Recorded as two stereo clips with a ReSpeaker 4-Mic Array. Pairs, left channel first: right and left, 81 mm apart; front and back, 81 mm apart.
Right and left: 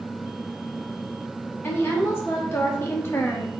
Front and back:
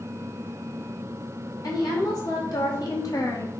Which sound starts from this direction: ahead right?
A woman speaking, at 1.6 s.